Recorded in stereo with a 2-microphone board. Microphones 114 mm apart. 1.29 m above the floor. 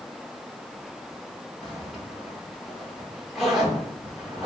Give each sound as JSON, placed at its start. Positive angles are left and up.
{"t": 1.6, "sound": "a zipper", "side_deg": -5, "distance_m": 0.9}